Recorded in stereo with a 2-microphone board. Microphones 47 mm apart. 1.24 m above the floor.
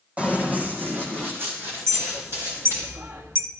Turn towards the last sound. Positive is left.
turn(degrees=-75)  # may be behind; listen again after turning